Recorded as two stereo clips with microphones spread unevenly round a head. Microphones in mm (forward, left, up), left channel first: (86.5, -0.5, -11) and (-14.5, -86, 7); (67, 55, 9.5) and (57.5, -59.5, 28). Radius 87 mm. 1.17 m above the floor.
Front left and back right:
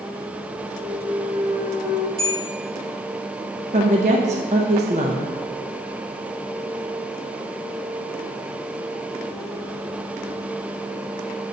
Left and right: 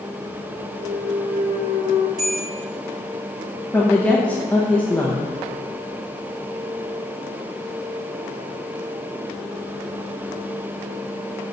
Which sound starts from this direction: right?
A clunk, at 0.8 s.